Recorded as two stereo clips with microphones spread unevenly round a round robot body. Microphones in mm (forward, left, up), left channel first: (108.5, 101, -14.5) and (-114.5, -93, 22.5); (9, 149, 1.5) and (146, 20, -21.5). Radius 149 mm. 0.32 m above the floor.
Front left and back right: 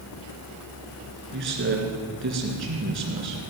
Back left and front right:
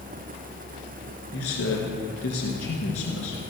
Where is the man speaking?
165° left, 4 m.